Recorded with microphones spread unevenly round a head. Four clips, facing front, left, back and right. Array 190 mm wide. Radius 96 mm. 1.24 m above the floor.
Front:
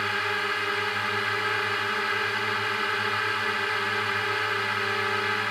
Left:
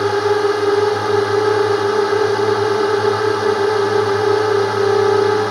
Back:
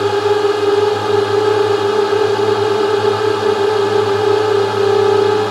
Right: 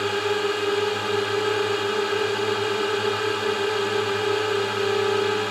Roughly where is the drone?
Behind left.